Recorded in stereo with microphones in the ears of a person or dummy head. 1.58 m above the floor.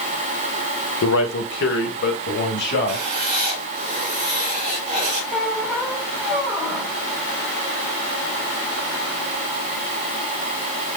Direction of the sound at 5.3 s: 10° right (ahead or behind).